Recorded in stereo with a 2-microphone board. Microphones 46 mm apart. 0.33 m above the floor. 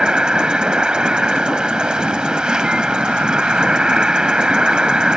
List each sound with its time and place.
0.0 s an insect: 20° right (ahead or behind)